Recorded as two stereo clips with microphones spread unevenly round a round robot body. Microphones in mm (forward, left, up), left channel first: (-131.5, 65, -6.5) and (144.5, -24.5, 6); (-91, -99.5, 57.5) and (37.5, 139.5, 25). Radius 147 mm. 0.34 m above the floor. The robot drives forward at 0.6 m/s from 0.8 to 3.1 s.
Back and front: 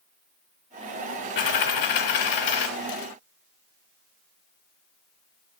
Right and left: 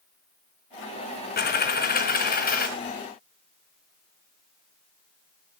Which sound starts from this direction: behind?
A dropped coin, at 1.4 s.